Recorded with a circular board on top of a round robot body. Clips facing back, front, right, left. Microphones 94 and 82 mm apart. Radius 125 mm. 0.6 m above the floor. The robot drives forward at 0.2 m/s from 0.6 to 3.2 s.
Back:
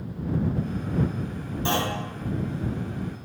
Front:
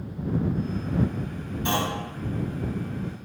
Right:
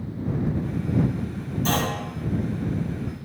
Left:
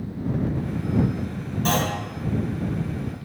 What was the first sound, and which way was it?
A clunk, 120° left.